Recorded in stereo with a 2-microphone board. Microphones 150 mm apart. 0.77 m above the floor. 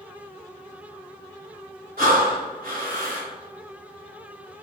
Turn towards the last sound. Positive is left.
turn(degrees=-70)  # may be behind; listen again after turning